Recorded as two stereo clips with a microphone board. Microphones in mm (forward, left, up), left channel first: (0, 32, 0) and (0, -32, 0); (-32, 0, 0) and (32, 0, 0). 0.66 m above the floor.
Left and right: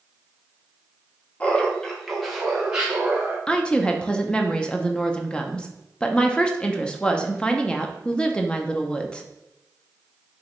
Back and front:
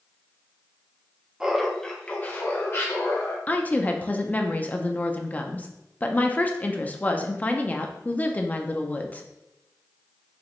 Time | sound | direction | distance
1.4 | laughter | 55° left | 0.8 m
3.5 | a woman speaking | 150° left | 0.5 m